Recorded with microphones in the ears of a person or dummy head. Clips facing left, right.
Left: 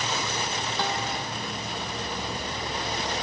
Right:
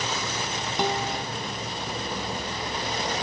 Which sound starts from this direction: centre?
A guitar, at 0.8 s.